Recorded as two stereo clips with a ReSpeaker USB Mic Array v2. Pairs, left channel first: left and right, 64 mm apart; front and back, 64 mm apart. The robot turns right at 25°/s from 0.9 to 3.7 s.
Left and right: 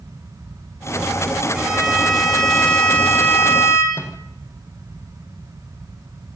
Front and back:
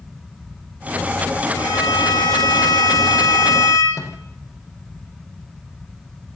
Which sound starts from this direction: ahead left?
A microwave, at 3.9 s.